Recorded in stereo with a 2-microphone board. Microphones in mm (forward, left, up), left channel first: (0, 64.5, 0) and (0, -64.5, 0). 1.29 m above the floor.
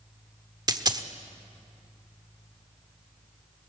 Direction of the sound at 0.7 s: 30° right (ahead or behind).